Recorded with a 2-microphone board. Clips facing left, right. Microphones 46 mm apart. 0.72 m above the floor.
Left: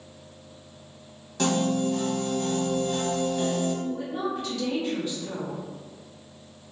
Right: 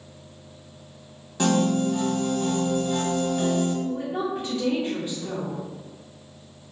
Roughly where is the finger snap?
No finger snap in this recording.